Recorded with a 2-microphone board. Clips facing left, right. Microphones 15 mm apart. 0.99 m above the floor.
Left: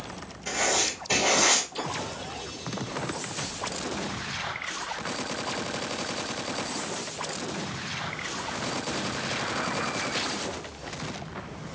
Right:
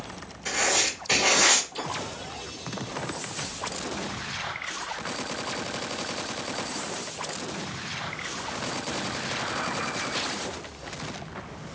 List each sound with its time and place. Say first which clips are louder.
0.5 s writing: right 1 dB; 80° right, 1.9 m